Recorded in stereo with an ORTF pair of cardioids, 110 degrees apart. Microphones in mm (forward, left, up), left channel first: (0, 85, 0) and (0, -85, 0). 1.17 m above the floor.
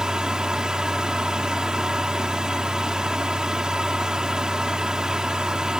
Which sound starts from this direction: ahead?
A fan, at 0.0 s.